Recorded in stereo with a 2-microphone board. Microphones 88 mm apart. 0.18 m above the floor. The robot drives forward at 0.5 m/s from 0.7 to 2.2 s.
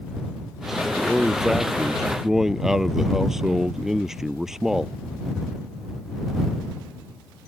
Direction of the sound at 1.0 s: 5° right (ahead or behind).